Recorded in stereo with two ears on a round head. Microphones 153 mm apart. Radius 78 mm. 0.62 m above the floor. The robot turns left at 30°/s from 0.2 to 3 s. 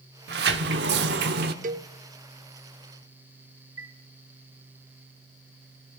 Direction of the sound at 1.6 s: 45° right (ahead or behind).